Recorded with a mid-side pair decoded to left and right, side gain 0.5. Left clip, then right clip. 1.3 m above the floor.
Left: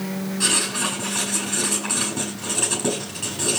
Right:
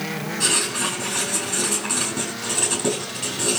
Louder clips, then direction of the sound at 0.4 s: Even; 10° right.